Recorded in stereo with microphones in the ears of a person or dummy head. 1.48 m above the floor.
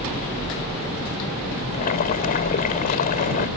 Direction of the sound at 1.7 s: 45° left (ahead or behind).